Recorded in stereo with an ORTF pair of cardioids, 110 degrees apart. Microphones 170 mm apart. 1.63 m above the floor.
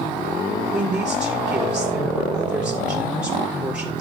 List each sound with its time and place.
0.7 s a woman speaking: 5° right, 4.5 m